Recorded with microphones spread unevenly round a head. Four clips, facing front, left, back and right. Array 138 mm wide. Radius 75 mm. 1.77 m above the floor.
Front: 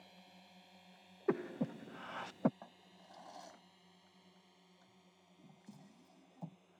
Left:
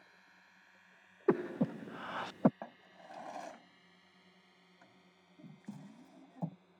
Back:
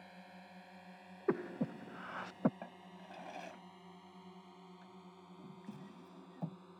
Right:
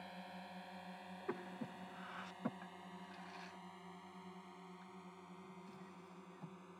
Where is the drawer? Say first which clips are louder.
Left 3 dB, back 7 dB; 120° left.